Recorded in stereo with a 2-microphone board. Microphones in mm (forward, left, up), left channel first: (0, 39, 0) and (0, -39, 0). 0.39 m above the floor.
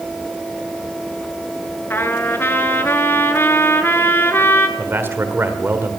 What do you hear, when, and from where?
1.9 s a trumpet: 30° left (ahead or behind), 0.9 m
4.8 s a man speaking: 30° right (ahead or behind), 1.4 m